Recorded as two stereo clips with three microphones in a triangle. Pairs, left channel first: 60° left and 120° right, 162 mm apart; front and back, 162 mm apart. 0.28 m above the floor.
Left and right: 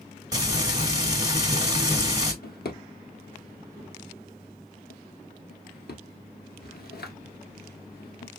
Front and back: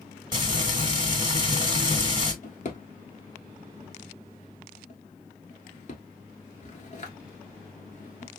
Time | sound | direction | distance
0.3 | frying | 155° right | 1.6 m
2.4 | a drawer | 45° left | 1.2 m